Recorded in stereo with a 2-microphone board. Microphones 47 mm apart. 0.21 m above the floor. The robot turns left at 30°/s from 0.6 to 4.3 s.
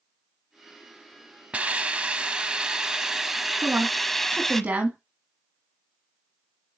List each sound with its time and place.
1.5 s a hiss: 110° right, 0.7 m; by 4.6 s 165° left, 0.7 m
3.6 s a woman speaking: 45° right (ahead or behind), 1.3 m; by 5.0 s 40° right (ahead or behind), 1.3 m